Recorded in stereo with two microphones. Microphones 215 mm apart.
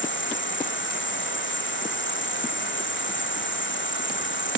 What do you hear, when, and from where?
0.0 s an insect: 65° left (ahead or behind)